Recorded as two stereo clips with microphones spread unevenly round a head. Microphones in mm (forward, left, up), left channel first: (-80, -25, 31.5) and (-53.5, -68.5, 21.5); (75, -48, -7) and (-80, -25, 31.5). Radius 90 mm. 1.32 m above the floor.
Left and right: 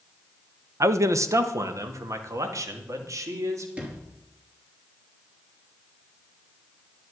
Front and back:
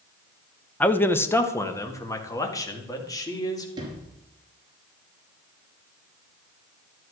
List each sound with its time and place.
0.8 s a man speaking: 90° right, 0.9 m; by 3.7 s 80° right, 3 m
3.8 s a sliding door: 130° right, 4.5 m